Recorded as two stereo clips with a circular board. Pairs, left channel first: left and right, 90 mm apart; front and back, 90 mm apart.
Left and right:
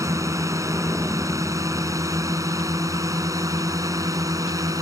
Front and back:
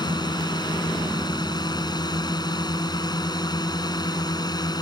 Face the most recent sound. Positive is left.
turn(degrees=-40)